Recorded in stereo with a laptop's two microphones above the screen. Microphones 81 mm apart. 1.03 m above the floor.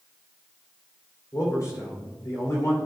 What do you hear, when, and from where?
1.3 s a man speaking: 45° left (ahead or behind), 3 m